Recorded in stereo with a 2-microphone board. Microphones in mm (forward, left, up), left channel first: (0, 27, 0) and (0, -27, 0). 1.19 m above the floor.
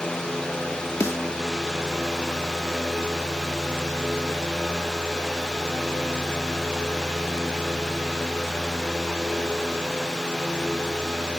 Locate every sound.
1.0 s a snare drum: 65° left (ahead or behind)